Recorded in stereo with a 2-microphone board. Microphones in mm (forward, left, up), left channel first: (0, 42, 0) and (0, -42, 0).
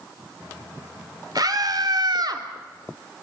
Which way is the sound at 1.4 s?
55° right (ahead or behind).